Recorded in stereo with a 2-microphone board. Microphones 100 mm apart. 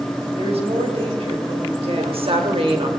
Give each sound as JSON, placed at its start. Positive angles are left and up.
{"t": 0.4, "sound": "a woman speaking", "side_deg": -75, "distance_m": 3.0}
{"t": 2.0, "sound": "a woman speaking", "side_deg": -65, "distance_m": 2.5}